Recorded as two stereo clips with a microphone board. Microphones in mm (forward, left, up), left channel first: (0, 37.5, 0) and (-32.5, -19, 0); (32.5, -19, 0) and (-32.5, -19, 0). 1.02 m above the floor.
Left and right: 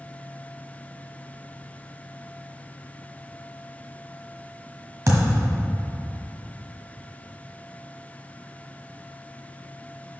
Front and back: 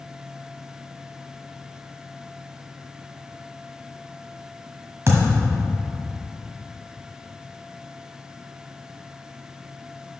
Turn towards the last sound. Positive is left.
turn(degrees=-140)